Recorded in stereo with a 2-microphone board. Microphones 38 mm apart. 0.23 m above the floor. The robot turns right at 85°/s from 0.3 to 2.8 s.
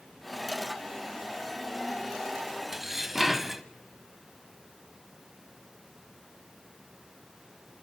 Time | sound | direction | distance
2.7 | dishes clattering | 15° right (ahead or behind) | 0.8 m